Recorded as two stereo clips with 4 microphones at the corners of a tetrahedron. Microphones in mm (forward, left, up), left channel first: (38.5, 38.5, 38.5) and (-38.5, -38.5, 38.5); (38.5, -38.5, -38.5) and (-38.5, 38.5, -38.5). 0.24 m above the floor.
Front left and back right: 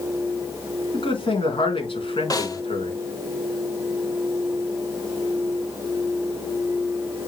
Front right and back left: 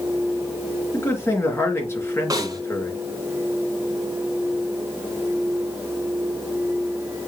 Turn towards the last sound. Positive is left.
turn(degrees=90)